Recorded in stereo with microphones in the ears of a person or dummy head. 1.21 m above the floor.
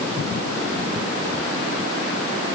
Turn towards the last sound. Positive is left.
No sound to turn to.